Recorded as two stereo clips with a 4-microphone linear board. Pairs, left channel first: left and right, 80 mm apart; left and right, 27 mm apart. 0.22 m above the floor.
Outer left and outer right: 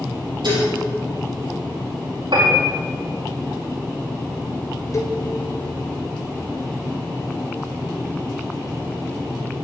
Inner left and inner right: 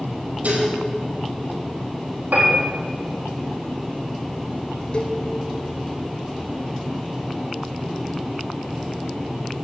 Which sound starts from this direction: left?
A cowbell, at 4.9 s.